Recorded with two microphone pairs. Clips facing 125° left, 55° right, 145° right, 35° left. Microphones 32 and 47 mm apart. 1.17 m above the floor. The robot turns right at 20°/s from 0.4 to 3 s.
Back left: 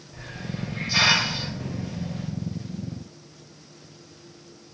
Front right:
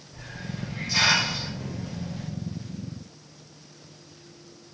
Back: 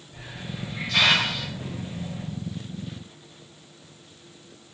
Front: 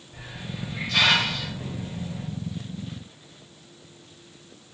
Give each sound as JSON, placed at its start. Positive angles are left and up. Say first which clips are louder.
{"t": 0.1, "sound": "a hiss", "louder": "back left 2 dB, even", "azimuth_deg": 110, "distance_m": 0.9}